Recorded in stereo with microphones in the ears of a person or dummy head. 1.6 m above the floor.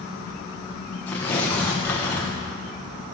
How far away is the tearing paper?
About 1.1 m.